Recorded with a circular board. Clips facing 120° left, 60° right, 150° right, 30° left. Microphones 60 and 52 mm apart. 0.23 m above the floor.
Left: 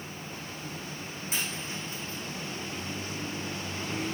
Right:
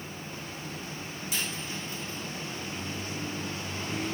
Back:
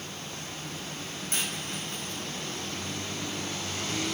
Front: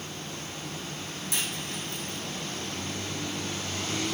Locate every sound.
1.3 s a dropped coin: 175° left, 5.5 m